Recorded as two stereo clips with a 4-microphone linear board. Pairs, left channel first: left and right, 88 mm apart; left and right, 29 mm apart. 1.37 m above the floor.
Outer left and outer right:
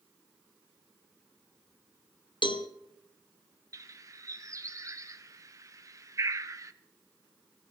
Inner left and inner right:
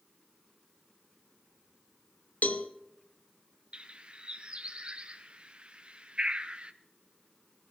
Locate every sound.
2.4 s a cowbell: 70° left (ahead or behind), 0.9 m
3.7 s a bird: 40° right (ahead or behind), 0.7 m